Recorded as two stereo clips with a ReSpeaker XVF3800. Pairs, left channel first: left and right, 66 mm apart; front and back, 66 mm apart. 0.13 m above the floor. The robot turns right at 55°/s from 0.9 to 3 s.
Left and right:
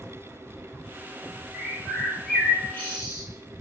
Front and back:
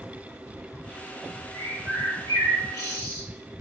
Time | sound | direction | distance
1.5 | a bird | 35° right | 0.8 m